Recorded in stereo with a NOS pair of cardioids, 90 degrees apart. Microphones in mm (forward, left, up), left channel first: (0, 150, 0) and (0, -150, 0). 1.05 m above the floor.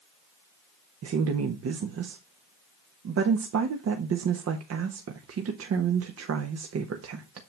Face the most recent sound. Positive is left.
turn(degrees=-55)